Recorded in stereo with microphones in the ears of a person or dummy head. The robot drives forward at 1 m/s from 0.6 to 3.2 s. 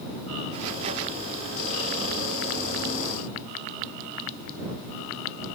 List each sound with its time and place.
Only background noise.